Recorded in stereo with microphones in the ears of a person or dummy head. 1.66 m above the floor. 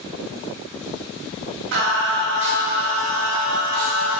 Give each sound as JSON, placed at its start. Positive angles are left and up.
{"t": 1.7, "sound": "singing", "side_deg": -60, "distance_m": 3.0}